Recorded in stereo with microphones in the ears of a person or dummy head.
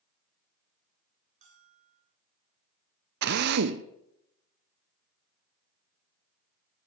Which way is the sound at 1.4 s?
45° right (ahead or behind).